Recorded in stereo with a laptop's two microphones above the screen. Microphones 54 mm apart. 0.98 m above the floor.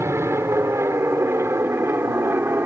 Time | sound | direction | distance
0.0 | an aircraft | 60° right (ahead or behind) | ?